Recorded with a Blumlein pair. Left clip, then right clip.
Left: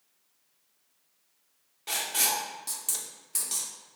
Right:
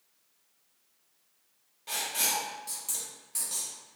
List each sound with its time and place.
1.9 s writing: 70° left, 0.7 m